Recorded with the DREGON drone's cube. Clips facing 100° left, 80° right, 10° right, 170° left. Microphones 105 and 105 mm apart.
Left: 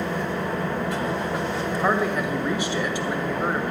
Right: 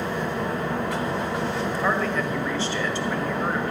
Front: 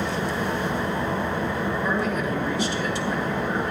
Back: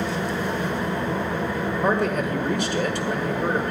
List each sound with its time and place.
0.0 s an engine running: 70° right, 4.5 m
1.8 s a man speaking: 175° left, 1.7 m